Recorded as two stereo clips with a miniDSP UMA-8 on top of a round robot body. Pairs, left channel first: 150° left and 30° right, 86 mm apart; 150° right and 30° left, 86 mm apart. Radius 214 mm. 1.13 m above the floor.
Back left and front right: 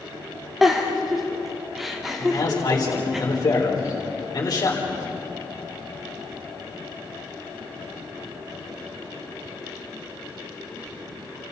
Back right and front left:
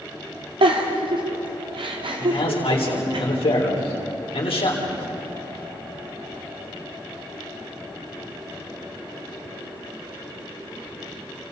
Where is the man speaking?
165° right, 4 m.